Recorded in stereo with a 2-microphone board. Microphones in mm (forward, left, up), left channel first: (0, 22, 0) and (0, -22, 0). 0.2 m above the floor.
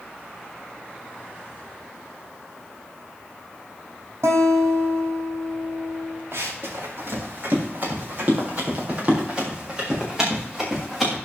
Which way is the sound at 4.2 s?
80° right.